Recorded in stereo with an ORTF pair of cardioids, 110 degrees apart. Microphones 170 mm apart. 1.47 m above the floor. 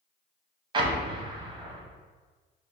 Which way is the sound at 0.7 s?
25° right.